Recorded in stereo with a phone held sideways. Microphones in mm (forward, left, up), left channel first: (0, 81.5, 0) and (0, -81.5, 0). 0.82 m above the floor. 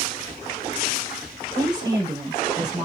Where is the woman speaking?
25° right (ahead or behind), 3 m.